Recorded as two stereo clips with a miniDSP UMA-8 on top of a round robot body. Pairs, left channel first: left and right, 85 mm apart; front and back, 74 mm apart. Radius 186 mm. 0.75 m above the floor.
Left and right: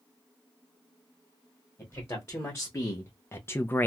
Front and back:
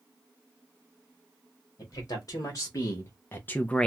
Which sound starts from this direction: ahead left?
A man speaking, at 1.8 s.